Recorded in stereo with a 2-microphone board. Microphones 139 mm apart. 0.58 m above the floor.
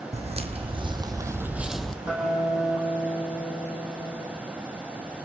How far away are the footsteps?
About 1.6 m.